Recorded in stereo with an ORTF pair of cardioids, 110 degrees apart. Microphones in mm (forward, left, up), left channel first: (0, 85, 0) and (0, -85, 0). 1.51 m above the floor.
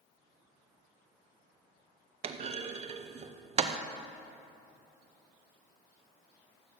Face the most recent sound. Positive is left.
turn(degrees=-35)